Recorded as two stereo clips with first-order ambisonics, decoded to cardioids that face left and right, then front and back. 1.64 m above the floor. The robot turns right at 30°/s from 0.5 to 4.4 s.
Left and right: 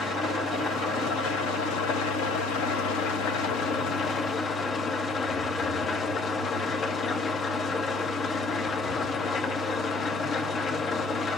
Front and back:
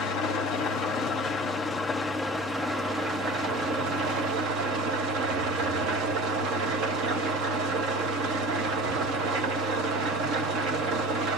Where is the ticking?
I don't hear ticking.